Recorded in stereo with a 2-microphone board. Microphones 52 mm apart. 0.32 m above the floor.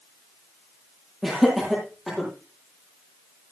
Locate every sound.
1.2 s laughter: centre (ahead or behind), 9.5 m